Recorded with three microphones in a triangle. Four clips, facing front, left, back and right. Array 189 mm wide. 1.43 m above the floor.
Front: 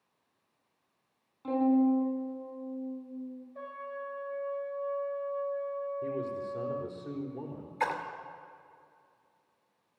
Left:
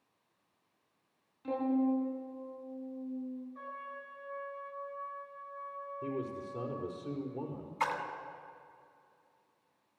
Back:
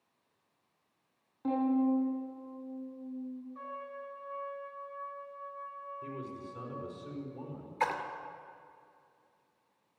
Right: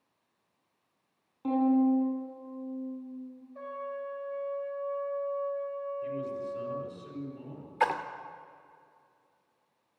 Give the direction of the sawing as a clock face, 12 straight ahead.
No sawing in this recording.